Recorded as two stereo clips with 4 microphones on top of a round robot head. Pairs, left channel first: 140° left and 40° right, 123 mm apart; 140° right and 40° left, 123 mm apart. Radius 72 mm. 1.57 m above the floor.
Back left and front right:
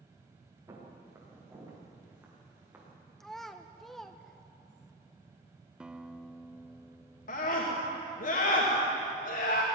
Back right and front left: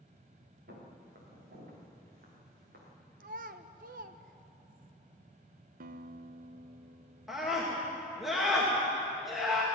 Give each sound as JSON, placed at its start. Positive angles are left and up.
{"t": 0.7, "sound": "footsteps", "azimuth_deg": 25, "distance_m": 7.5}
{"t": 3.2, "sound": "a child speaking", "azimuth_deg": 55, "distance_m": 0.8}
{"t": 5.8, "sound": "a guitar", "azimuth_deg": 45, "distance_m": 0.8}
{"t": 7.3, "sound": "a scream", "azimuth_deg": 125, "distance_m": 3.0}